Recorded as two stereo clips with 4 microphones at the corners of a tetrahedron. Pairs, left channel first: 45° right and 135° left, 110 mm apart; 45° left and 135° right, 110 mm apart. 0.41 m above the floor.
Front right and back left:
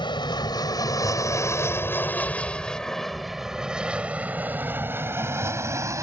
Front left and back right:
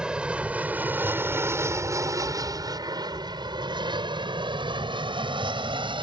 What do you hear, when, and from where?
0.0 s an aircraft: 55° right; by 6.0 s 165° right